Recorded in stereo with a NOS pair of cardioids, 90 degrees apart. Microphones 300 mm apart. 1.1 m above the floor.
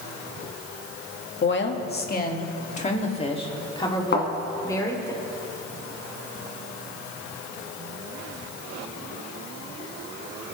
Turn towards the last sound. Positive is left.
turn(degrees=40)